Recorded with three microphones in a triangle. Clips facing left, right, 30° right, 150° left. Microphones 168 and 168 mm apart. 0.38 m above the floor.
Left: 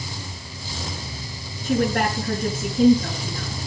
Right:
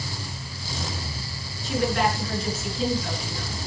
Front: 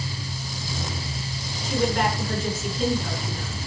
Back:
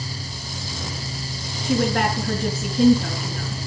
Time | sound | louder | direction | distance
1.6 | a woman speaking | left 3 dB, back 3 dB | 125° left | 5 m